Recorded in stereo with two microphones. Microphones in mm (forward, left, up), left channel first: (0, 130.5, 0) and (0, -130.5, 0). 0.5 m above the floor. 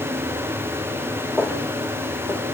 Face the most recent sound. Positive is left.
turn(degrees=-10)  # may be behind; listen again after turning